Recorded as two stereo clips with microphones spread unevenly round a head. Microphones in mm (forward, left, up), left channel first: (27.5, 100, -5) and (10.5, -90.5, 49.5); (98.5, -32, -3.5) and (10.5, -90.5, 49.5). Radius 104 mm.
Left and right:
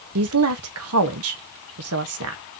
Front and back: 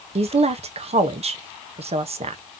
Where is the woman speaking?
105° right, 0.8 m.